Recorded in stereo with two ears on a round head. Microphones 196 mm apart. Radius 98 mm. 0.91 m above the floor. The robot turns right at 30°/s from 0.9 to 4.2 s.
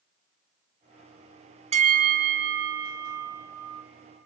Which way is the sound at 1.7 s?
150° right.